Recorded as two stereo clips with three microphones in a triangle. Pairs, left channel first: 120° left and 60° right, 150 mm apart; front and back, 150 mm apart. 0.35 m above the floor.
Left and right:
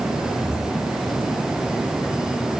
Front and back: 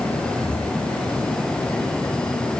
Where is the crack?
No crack in this recording.